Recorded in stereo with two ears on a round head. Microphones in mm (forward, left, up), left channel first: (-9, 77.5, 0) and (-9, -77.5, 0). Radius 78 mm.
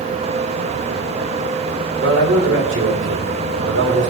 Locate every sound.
2.0 s a man speaking: 80° right, 3.5 m